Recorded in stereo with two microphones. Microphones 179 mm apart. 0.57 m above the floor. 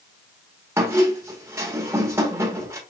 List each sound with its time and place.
0.8 s a squeak: 15° right (ahead or behind), 1.0 m